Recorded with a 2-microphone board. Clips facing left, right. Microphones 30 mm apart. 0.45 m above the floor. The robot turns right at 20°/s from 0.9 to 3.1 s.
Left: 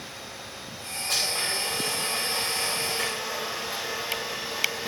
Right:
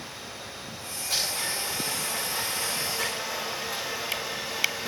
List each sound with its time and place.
1.1 s a blender: 85° left, 8 m; by 4.9 s 125° left, 8 m